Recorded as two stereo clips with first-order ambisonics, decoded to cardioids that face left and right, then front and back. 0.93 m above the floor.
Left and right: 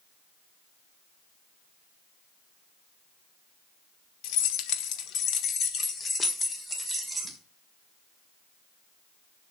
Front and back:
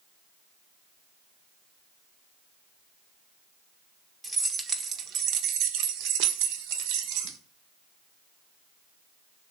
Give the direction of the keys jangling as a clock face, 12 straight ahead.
9 o'clock.